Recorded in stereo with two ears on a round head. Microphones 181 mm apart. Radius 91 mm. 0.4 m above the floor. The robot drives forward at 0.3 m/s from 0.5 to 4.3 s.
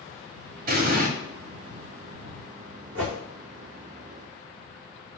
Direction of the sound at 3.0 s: 60° right (ahead or behind).